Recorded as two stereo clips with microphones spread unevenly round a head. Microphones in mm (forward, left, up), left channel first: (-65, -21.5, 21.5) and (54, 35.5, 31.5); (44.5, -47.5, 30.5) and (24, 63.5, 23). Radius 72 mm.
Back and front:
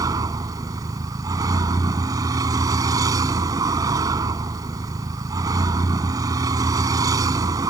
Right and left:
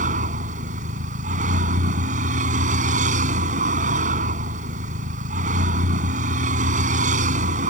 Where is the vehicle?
90° left.